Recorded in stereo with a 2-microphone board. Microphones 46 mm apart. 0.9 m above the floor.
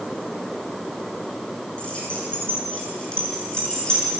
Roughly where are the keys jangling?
Left.